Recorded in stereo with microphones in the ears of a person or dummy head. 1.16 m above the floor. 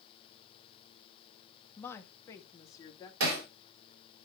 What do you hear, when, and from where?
1.8 s a woman speaking: 10° left (ahead or behind), 1.4 m; by 3.1 s 20° left (ahead or behind), 2.5 m
3.2 s hammering: 70° right (ahead or behind), 3 m